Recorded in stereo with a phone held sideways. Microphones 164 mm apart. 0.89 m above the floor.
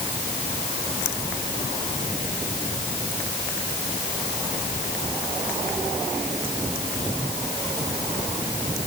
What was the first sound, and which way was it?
Only background noise.